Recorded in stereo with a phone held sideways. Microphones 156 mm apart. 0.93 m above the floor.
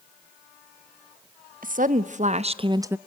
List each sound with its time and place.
1.6 s a woman speaking: 60° right (ahead or behind), 1.3 m; by 3.0 s 10° right (ahead or behind), 0.5 m